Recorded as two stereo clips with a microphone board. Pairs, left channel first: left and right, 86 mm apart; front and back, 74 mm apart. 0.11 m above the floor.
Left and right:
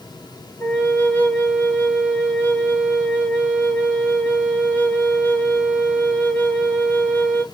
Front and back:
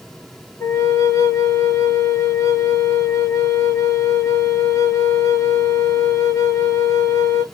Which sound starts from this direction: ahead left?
A flute, at 0.6 s.